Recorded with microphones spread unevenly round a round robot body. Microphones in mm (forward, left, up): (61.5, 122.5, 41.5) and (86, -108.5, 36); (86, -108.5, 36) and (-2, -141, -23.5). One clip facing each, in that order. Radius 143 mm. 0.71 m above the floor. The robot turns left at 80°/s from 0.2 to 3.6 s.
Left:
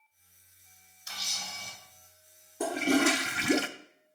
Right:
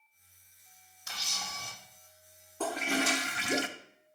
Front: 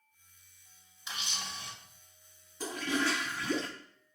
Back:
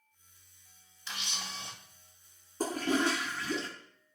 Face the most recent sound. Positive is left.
turn(degrees=100)